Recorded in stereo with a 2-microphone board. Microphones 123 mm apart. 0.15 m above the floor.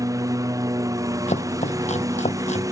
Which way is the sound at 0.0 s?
30° right (ahead or behind).